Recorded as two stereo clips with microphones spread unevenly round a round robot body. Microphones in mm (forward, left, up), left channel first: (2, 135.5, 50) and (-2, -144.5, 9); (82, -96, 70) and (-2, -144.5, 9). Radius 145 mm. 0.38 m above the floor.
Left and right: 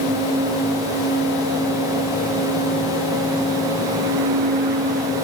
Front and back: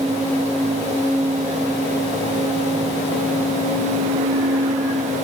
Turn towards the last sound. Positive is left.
No sound to turn to.